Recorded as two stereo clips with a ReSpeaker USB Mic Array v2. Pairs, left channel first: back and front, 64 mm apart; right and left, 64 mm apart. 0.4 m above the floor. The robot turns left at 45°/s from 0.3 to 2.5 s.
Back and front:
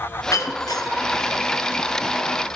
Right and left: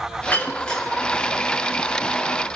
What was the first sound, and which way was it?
Breaking glass, 150° right.